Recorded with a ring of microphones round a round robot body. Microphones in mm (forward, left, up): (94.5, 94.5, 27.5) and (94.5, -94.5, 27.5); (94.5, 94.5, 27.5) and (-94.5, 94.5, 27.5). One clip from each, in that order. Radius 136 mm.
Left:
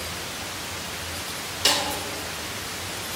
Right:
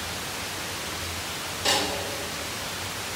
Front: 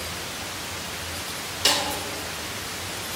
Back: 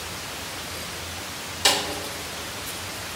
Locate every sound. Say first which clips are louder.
1.6 s a snare drum: left 2 dB, back 1 dB; 110° left, 3 m